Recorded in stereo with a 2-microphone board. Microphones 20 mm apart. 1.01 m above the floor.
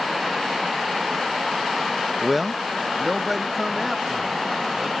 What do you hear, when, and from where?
2.2 s a man speaking: centre (ahead or behind); by 4.9 s 10° right (ahead or behind)